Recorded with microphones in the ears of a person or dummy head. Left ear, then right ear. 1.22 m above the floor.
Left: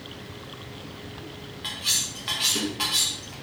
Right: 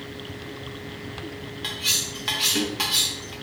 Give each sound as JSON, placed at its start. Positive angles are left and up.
{"t": 1.6, "sound": "cutlery clinking", "side_deg": -10, "distance_m": 0.6}